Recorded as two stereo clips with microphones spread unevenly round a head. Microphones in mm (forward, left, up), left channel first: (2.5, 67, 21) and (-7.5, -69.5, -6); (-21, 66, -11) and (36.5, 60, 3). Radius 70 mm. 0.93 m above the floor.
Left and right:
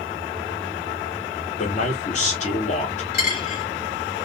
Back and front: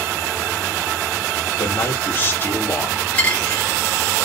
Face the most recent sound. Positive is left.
turn(degrees=110)